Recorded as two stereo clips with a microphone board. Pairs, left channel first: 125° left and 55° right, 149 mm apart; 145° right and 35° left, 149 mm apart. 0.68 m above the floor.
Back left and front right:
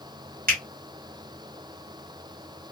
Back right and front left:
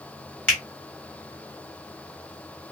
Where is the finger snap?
65° right, 2.0 m.